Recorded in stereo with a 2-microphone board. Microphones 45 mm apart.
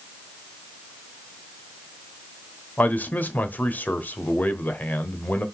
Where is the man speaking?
40° left (ahead or behind), 1.2 m.